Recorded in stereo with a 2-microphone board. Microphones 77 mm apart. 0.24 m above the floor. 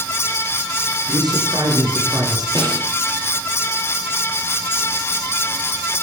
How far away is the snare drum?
About 6 m.